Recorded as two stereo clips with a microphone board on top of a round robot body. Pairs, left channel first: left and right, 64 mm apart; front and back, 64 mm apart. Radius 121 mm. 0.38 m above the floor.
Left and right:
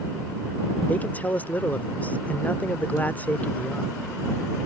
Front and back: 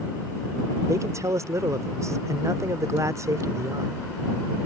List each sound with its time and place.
0.9 s a man speaking: 155° left